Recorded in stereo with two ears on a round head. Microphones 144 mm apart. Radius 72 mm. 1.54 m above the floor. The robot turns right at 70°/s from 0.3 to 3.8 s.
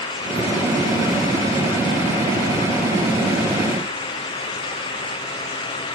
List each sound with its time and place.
Only background noise.